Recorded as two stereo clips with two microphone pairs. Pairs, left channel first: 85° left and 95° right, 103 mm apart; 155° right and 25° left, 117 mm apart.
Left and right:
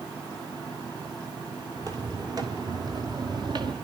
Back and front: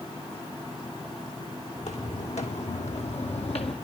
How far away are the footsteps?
About 2 m.